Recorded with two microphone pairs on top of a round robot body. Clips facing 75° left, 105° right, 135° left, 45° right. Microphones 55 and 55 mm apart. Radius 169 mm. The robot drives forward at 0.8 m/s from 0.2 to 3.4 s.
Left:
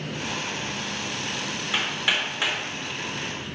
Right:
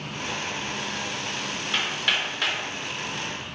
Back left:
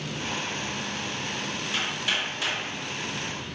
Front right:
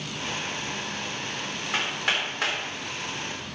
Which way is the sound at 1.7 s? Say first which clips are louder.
Left 1 dB, front right 3 dB; 5° right.